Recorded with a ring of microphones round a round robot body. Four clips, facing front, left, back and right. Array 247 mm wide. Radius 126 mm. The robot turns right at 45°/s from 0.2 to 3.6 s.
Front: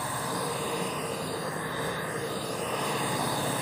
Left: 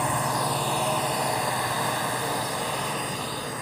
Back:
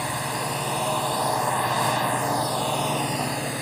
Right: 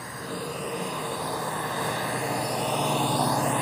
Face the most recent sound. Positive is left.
turn(degrees=-100)